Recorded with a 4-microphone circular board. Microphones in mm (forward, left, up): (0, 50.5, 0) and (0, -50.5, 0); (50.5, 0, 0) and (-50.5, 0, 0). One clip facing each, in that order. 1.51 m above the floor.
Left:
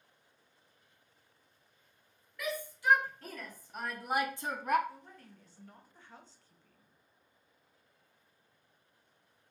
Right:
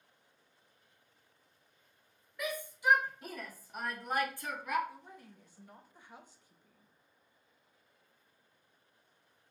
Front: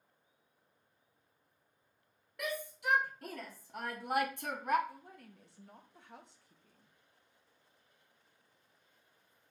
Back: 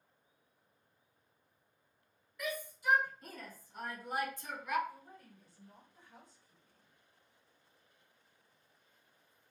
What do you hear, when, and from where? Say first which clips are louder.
2.4 s a shout: even, front 1 dB; 20° right, 1.9 m; by 4.8 s 50° left, 0.5 m
4.9 s a woman speaking: even, front 1 dB; 15° right, 0.8 m